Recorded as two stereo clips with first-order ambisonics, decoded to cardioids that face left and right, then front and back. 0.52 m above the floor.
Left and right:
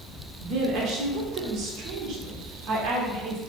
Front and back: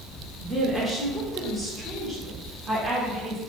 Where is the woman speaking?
100° right, 0.9 m.